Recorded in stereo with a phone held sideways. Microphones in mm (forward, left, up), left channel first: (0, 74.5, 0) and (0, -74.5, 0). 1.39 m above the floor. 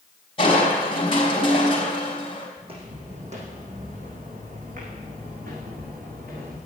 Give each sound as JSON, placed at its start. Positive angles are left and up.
{"t": 0.4, "sound": "crushing", "side_deg": 35, "distance_m": 3.5}
{"t": 2.6, "sound": "footsteps", "side_deg": -40, "distance_m": 3.5}